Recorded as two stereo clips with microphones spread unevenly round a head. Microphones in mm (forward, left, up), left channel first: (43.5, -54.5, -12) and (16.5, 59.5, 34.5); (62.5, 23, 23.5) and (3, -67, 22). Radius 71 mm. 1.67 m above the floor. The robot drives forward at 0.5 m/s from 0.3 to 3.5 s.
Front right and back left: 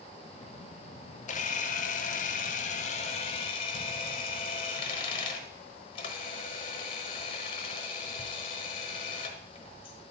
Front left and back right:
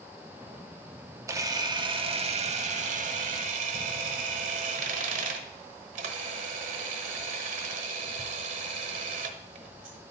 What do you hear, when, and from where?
1.3 s a camera shutter: 60° right, 0.9 m; by 10.0 s 130° right, 1.1 m